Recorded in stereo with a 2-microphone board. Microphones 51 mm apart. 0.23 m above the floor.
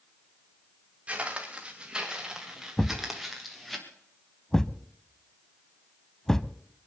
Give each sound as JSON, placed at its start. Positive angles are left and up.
{"t": 1.1, "sound": "footsteps", "side_deg": -25, "distance_m": 4.0}
{"t": 2.8, "sound": "a thud", "side_deg": 10, "distance_m": 0.5}